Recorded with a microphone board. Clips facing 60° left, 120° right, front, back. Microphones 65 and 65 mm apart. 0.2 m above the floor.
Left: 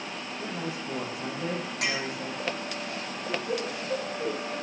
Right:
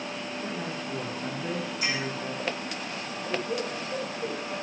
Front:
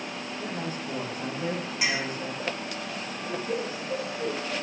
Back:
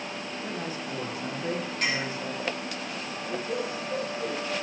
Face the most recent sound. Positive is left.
turn(degrees=60)